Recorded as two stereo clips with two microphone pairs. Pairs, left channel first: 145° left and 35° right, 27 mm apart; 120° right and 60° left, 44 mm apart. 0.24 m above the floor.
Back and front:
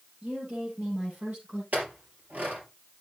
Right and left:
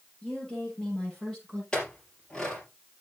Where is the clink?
50° right, 3.5 m.